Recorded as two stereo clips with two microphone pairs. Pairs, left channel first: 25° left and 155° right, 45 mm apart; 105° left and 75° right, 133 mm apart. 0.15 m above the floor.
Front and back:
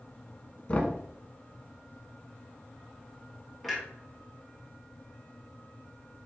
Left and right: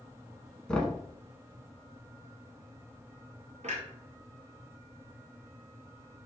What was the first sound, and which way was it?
Knocking, 25° left.